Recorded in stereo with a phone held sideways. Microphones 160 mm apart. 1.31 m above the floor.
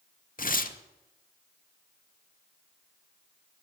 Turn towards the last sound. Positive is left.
turn(degrees=60)  # may be behind; listen again after turning